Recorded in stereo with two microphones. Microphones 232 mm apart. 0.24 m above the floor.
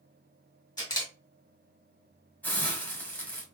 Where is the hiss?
5° left (ahead or behind), 1.3 m.